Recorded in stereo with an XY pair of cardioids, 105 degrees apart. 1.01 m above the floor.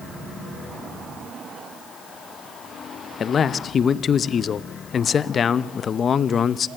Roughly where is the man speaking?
Ahead left.